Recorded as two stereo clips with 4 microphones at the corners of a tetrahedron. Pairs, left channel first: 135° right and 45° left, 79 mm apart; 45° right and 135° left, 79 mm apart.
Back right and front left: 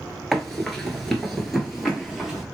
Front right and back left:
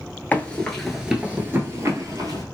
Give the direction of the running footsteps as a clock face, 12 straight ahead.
2 o'clock.